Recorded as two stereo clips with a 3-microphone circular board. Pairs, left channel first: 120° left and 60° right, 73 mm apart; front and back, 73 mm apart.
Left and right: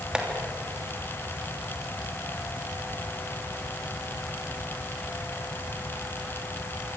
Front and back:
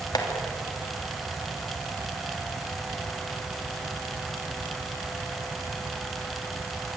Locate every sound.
0.1 s tapping: 20° left, 3 m